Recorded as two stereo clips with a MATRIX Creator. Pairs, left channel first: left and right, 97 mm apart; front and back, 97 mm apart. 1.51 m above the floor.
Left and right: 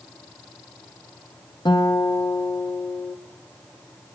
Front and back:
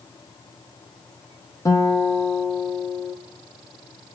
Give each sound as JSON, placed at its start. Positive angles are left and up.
{"t": 1.6, "sound": "a guitar", "azimuth_deg": 55, "distance_m": 0.9}